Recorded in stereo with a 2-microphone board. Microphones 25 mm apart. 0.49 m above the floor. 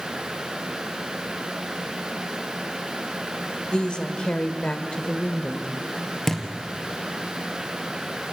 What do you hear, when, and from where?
3.7 s a woman speaking: 50° left (ahead or behind), 1.4 m; by 5.7 s 55° left (ahead or behind), 1.4 m
6.3 s a thud: 10° left (ahead or behind), 2.5 m